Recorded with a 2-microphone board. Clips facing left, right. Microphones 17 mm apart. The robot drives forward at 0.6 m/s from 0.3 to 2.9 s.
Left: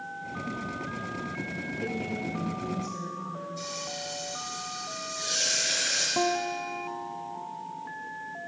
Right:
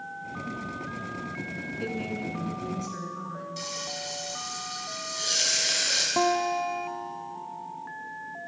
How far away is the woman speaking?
About 3 m.